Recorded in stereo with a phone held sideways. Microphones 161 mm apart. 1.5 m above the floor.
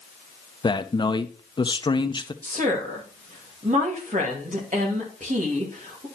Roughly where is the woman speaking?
Right.